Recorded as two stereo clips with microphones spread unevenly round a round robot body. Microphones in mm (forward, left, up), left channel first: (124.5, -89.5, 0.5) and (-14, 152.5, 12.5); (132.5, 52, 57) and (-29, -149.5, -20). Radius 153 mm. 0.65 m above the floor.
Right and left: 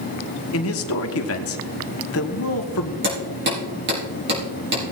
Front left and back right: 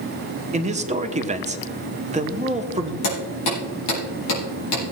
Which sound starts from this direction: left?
Hammering, at 3.0 s.